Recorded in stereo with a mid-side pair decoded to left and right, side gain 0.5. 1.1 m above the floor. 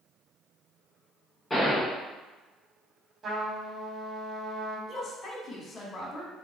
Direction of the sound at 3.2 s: 40° right.